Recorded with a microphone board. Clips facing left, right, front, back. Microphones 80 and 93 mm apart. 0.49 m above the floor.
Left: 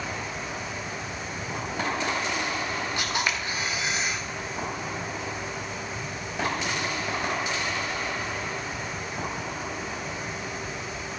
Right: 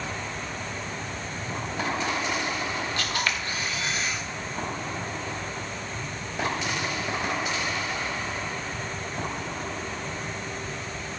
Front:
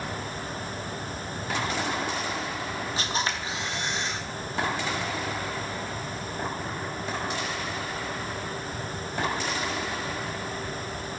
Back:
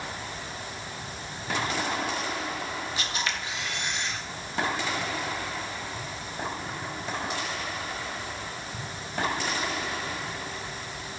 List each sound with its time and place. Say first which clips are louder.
3.0 s a camera shutter: even, front 3 dB; 25° left, 1.3 m